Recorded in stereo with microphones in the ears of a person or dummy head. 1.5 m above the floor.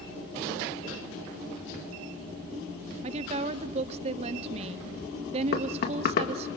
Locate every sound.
3.0 s a woman speaking: 40° right (ahead or behind), 0.7 m
5.5 s knocking: 55° left (ahead or behind), 2 m